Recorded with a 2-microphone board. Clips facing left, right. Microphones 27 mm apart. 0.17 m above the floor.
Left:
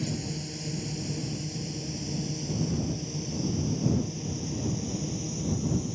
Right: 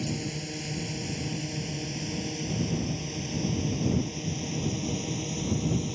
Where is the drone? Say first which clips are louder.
Right 1 dB; 25° right (ahead or behind); by 6.0 s 45° right (ahead or behind).